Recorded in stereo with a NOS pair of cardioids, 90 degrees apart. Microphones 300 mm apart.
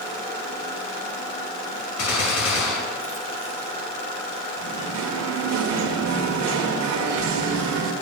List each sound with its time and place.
2.0 s a gunshot: 60° left, 3.5 m
4.6 s singing: 65° right, 2 m